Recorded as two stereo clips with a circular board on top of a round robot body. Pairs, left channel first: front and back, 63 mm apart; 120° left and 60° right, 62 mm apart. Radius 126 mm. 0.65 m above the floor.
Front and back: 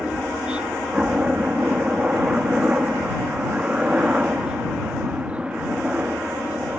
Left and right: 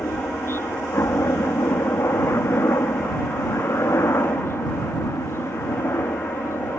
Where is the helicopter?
115° left.